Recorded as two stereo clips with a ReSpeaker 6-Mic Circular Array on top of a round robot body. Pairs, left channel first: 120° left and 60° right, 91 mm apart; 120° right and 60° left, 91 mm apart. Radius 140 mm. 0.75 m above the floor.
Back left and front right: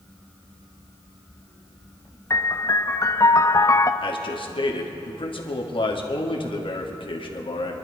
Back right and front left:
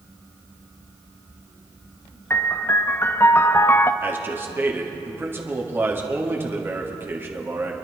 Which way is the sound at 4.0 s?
125° left.